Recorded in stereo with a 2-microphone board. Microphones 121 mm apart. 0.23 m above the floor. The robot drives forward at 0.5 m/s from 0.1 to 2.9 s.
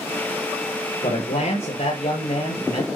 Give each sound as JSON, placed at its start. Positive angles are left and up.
{"t": 1.0, "sound": "a man speaking", "side_deg": 75, "distance_m": 5.5}